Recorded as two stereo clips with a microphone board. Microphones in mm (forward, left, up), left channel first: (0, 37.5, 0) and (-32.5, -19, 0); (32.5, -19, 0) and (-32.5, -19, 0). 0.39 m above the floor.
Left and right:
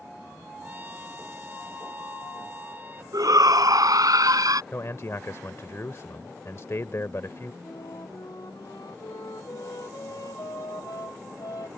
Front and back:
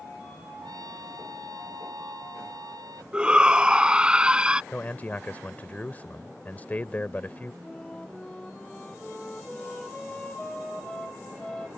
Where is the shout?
105° right.